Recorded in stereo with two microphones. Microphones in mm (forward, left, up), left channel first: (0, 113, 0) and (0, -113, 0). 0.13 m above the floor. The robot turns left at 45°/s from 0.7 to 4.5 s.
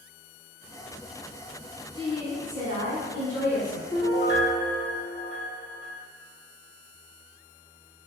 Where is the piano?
10° left (ahead or behind), 1.4 m; by 5.9 s 30° left (ahead or behind), 1.4 m.